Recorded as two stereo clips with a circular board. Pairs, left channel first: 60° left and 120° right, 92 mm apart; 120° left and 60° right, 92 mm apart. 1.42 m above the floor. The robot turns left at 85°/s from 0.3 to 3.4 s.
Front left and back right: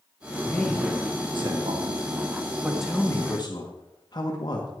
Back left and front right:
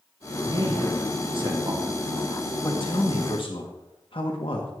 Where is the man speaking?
5° right, 1.5 m; by 4.7 s 100° left, 1.5 m.